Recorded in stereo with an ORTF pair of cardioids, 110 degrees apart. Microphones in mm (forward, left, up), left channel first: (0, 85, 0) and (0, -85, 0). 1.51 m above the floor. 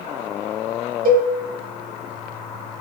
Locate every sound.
1.1 s a cowbell: 55° right, 1.6 m